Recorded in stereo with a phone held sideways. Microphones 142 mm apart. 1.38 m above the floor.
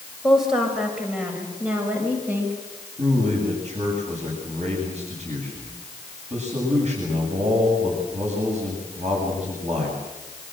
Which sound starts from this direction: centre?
A woman speaking, at 0.2 s.